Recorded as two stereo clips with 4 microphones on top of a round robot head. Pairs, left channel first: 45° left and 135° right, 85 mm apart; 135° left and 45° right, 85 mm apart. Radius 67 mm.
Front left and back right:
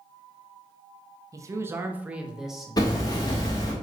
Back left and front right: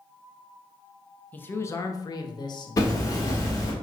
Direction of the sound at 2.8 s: 85° left.